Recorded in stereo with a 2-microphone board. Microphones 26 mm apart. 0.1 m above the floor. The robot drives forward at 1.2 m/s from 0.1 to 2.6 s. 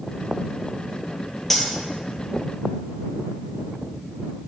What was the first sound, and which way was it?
Cutlery clinking, 10° left (ahead or behind).